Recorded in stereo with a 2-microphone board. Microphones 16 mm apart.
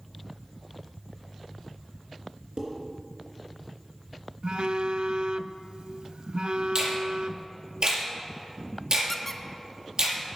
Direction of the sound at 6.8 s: 65° right (ahead or behind).